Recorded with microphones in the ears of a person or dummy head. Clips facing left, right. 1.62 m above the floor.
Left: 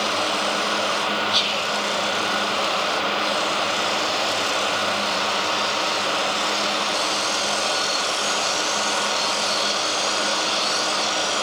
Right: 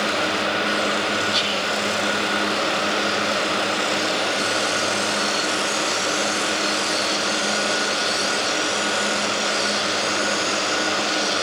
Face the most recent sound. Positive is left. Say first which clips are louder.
# right 1 dB
turn(degrees=-15)  # may be behind; listen again after turning